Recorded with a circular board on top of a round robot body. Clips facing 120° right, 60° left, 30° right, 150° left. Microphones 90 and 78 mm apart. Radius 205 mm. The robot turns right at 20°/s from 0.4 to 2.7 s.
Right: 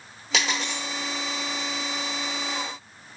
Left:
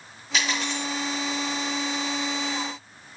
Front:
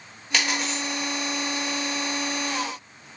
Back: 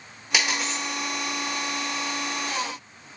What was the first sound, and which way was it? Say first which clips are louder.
A dropped coin: even, even; 130° right.